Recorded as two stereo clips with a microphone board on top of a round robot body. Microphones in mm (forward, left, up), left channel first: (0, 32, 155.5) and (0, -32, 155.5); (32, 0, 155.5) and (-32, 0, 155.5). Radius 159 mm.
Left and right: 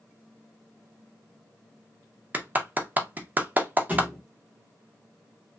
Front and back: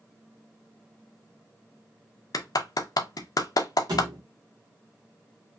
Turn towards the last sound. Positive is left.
turn(degrees=-155)